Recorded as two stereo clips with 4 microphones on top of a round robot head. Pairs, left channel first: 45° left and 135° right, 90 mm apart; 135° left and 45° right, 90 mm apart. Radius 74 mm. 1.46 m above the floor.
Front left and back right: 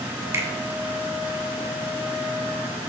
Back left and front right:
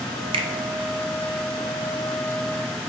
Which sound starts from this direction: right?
A finger snap, at 0.3 s.